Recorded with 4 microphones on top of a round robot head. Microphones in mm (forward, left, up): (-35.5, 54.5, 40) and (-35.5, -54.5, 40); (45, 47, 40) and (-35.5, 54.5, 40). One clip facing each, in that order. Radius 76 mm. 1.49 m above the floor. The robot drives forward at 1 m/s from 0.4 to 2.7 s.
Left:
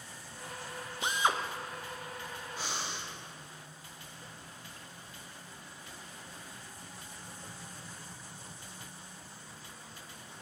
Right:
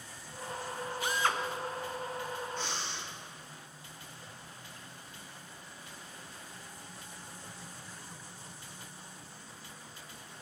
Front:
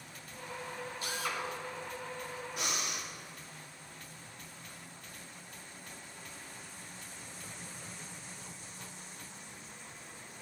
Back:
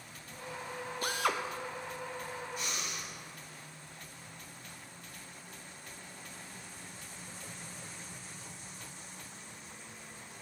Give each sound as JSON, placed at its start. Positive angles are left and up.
{"t": 1.0, "sound": "a drill", "azimuth_deg": 150, "distance_m": 0.7}
{"t": 2.6, "sound": "breathing", "azimuth_deg": 5, "distance_m": 1.6}